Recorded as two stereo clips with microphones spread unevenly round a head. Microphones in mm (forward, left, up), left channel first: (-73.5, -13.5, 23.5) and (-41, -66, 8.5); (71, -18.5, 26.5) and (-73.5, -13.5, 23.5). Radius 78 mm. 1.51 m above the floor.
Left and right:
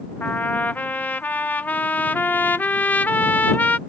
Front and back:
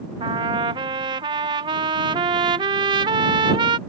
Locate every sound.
0.2 s a trumpet: 130° left